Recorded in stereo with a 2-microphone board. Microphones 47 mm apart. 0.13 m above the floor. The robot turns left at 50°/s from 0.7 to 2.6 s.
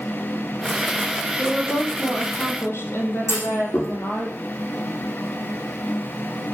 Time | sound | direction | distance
1.4 | a woman speaking | 160° left | 4 m
3.3 | a clunk | 70° left (ahead or behind) | 6.5 m